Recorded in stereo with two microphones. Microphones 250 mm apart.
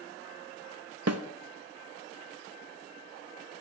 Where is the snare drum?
70° right (ahead or behind), 0.6 m.